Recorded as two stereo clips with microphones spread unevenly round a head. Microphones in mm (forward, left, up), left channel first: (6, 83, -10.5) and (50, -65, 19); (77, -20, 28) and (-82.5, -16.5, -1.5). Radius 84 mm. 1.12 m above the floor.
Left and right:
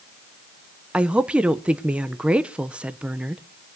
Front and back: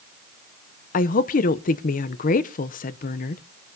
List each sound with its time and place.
0.9 s a woman speaking: 20° left, 0.5 m